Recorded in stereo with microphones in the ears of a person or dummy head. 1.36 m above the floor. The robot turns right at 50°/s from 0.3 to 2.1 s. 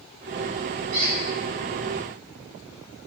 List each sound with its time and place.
0.9 s a squeak: 25° right (ahead or behind), 0.8 m; by 1.1 s 30° right (ahead or behind), 0.8 m